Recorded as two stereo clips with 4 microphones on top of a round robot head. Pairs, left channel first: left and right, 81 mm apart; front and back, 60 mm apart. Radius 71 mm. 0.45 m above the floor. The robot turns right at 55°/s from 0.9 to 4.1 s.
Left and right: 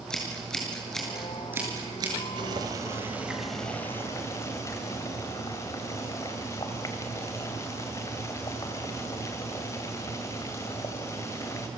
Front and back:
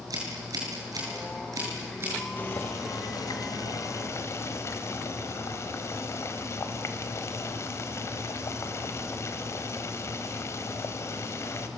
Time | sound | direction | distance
0.1 | scissors | 170° left | 8 m
2.4 | boiling | 60° right | 2.5 m